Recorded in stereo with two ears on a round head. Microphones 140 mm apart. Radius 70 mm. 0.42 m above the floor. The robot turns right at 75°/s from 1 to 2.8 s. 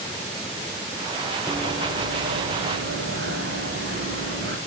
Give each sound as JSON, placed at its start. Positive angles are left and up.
{"t": 1.5, "sound": "running footsteps", "side_deg": 0, "distance_m": 2.0}